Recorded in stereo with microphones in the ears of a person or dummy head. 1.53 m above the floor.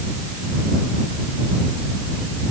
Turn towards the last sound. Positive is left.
No sound to turn to.